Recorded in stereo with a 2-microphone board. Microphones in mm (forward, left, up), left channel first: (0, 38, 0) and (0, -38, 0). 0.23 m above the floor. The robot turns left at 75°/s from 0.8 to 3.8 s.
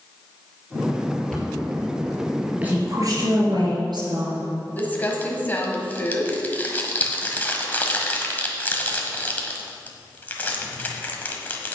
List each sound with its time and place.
1.3 s a cupboard door: 10° left (ahead or behind), 3.5 m; by 1.6 s 15° right (ahead or behind), 3.5 m
2.6 s a woman speaking: 20° right, 3.5 m; by 4.5 s 110° right, 3.5 m
4.8 s crumpling: 25° left (ahead or behind), 1.3 m